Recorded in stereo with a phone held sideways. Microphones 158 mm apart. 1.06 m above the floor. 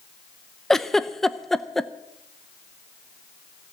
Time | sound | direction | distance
0.7 | a giggle | 5° left (ahead or behind) | 0.5 m